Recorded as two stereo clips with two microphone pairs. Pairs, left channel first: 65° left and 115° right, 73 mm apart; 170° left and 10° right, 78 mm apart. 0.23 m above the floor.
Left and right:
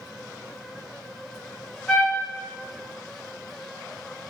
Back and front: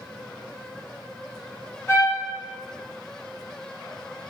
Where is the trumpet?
135° left, 0.6 m.